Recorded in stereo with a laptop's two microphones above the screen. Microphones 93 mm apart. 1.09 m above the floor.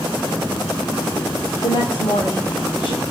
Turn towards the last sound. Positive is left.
turn(degrees=55)  # may be behind; listen again after turning